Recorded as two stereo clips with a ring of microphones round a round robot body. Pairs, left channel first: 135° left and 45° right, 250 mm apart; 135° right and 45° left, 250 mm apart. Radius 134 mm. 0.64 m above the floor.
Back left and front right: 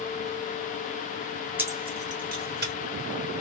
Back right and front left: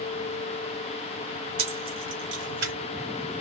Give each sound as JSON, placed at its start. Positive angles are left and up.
{"t": 1.6, "sound": "keys jangling", "azimuth_deg": 35, "distance_m": 0.9}